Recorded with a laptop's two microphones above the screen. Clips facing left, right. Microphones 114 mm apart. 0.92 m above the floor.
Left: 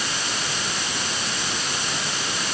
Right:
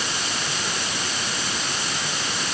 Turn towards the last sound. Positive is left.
No sound to turn to.